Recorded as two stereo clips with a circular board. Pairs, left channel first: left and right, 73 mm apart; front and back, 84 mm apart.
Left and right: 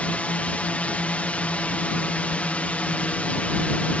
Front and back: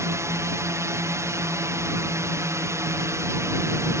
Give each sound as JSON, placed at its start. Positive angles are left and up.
{"t": 0.0, "sound": "a drone", "azimuth_deg": 150}